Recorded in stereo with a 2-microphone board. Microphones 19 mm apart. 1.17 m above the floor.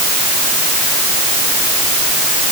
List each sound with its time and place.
Only background noise.